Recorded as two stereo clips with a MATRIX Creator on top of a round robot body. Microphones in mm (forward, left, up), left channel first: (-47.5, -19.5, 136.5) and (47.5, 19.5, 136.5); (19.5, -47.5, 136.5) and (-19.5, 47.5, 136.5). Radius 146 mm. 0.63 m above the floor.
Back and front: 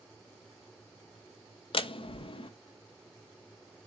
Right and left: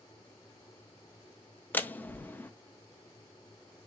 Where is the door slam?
140° right, 0.6 m.